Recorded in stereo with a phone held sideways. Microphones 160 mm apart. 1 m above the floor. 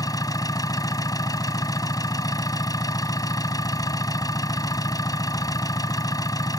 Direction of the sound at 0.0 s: 20° left (ahead or behind).